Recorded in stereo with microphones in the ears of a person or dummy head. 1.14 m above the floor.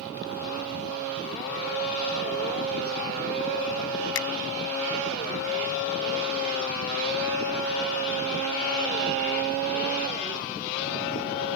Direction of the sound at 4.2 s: 70° left (ahead or behind).